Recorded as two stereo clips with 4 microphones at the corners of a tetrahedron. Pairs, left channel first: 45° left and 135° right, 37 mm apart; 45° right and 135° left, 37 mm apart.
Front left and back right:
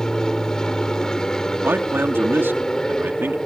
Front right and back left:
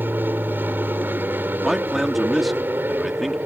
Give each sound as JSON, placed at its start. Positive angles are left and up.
{"t": 0.0, "sound": "an aircraft", "azimuth_deg": 120}
{"t": 1.6, "sound": "a man speaking", "azimuth_deg": -140}